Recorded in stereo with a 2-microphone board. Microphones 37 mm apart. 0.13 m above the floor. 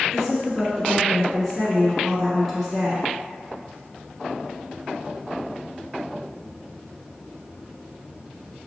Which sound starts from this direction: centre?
A woman speaking, at 0.1 s.